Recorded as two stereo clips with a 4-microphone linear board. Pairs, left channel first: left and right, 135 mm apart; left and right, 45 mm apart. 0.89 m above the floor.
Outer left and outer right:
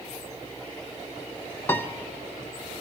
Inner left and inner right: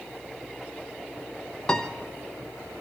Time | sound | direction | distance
1.7 | a piano | 20° left (ahead or behind) | 0.8 m